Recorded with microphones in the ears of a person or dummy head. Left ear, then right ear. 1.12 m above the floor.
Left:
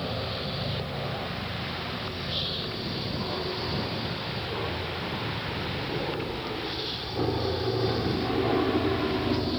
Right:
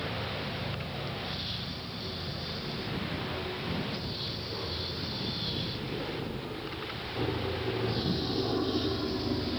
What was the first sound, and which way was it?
An aircraft, 15° left (ahead or behind).